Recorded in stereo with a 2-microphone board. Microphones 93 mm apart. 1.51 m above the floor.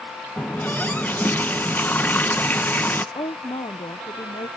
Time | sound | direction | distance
0.4 | a running tap | 20° left (ahead or behind) | ?
3.1 | a woman speaking | 65° left (ahead or behind) | ?